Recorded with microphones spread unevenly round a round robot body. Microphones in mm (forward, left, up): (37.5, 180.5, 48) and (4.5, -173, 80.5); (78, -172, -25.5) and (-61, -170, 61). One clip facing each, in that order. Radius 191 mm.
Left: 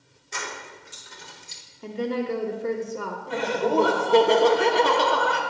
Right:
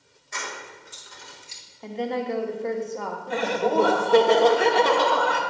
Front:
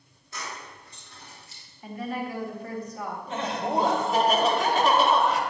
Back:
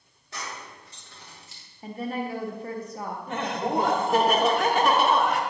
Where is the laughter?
155° left, 1.2 m.